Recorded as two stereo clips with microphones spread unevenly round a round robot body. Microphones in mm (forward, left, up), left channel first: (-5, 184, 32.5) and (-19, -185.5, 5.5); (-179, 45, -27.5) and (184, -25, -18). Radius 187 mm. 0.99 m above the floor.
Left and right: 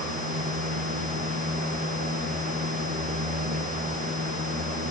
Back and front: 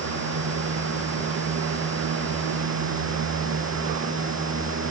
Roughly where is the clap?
I don't hear a clap.